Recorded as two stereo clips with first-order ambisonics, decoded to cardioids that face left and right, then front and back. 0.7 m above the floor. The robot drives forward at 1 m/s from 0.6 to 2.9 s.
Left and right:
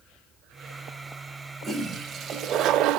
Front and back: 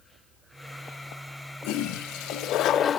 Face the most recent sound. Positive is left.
turn(degrees=-60)